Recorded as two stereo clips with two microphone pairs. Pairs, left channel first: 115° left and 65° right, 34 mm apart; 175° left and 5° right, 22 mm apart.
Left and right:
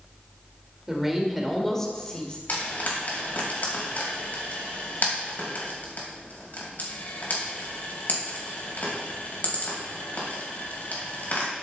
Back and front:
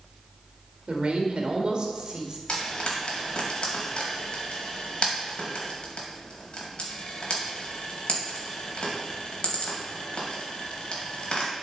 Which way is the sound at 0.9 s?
10° left.